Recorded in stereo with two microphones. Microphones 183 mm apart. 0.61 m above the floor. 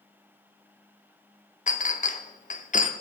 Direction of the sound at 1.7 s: 45° left (ahead or behind).